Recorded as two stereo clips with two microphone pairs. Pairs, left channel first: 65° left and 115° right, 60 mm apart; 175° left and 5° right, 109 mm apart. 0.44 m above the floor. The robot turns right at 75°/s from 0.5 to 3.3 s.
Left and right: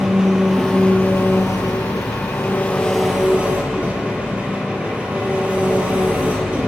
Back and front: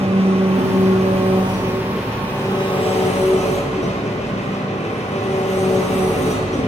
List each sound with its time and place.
0.0 s an engine running: 30° right, 5.5 m; by 6.7 s straight behind, 5.5 m